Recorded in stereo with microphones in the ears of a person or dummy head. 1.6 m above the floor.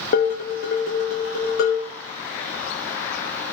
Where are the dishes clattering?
55° left (ahead or behind), 1.2 m.